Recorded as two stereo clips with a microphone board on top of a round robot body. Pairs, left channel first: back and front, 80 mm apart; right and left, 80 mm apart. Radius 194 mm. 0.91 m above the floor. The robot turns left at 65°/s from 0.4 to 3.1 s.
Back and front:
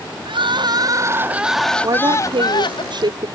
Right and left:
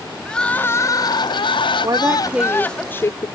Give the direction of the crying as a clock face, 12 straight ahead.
12 o'clock.